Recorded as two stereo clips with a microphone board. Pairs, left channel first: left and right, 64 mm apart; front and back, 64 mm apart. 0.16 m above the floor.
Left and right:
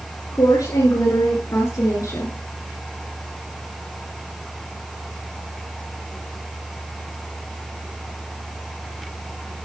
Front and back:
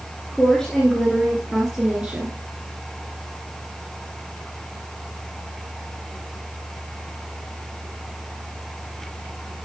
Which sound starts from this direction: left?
A woman speaking, at 0.3 s.